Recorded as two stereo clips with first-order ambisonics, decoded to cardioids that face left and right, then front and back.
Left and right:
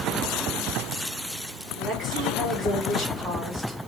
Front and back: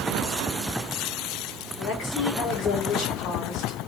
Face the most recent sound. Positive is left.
turn(degrees=-25)